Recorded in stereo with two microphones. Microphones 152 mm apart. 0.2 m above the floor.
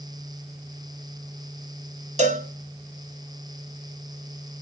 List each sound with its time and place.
2.2 s a cowbell: 55° right (ahead or behind), 0.9 m